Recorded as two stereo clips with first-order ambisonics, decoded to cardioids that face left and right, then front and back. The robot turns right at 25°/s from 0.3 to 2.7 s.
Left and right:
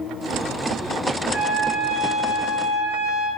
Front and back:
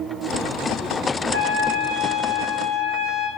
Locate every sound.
1.3 s a trumpet: 165° right, 2.5 m; by 3.3 s 130° right, 2.5 m